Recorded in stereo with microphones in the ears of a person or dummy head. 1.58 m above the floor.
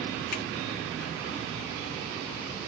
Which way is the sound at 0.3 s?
65° left (ahead or behind).